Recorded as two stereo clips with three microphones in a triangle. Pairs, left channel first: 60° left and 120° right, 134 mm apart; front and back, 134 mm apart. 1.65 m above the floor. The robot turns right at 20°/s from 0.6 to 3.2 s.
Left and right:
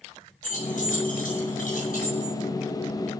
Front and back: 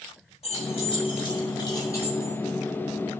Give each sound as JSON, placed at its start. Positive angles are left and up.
{"t": 0.4, "sound": "keys jangling", "azimuth_deg": 40, "distance_m": 6.5}